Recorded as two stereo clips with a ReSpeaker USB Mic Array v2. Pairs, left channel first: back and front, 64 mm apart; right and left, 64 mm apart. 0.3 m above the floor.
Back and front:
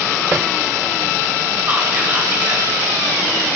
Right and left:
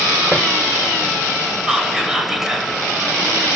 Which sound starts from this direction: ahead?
Whispering, at 1.7 s.